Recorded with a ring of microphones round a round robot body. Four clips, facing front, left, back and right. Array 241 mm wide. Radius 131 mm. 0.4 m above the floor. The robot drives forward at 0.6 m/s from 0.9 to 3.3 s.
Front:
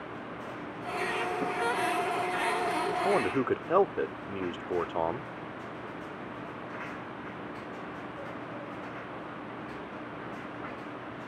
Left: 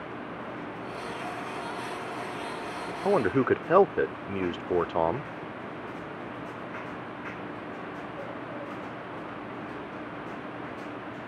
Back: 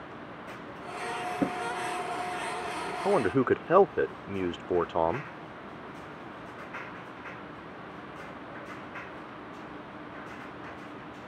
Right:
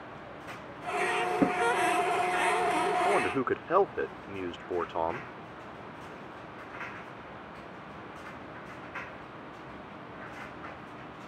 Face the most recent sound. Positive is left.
turn(degrees=120)